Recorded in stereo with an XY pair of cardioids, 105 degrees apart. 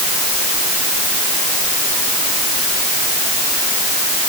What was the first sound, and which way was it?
Only background noise.